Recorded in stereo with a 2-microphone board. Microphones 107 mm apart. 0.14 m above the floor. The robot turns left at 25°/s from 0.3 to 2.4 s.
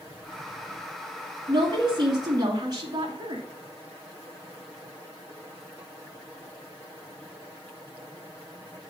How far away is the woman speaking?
About 1.6 m.